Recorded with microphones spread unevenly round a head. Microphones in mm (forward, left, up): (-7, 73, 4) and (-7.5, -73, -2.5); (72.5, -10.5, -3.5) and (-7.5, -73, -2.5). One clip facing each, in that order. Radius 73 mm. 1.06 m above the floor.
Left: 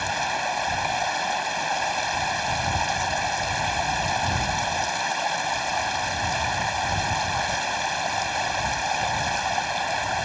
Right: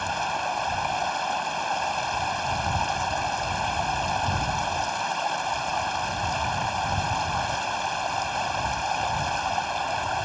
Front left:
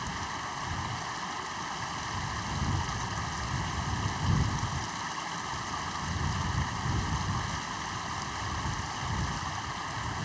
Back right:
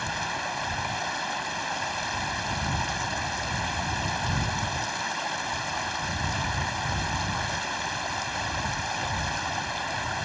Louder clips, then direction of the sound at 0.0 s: Left 1 dB, back right 5 dB; 170° left.